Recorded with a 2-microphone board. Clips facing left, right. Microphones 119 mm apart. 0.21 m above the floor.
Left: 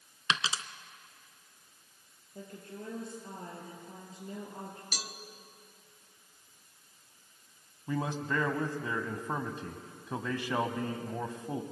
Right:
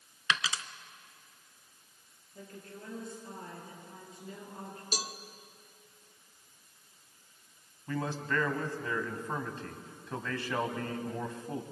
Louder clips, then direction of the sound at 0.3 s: Even; 25° left (ahead or behind).